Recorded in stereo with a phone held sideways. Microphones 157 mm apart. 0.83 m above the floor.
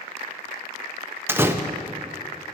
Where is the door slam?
15° right (ahead or behind), 0.5 m.